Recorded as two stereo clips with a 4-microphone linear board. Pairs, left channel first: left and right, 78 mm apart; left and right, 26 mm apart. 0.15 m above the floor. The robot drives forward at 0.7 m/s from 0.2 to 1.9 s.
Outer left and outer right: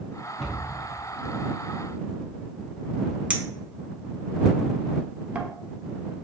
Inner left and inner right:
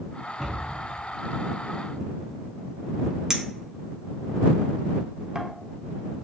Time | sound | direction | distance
0.4 | a cupboard door | centre (ahead or behind) | 1.6 m
3.3 | a clink | 15° right (ahead or behind) | 0.6 m